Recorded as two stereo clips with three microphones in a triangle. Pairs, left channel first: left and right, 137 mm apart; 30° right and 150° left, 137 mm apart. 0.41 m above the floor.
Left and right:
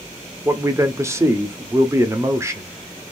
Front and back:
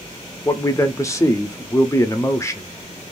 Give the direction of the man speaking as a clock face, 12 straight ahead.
2 o'clock.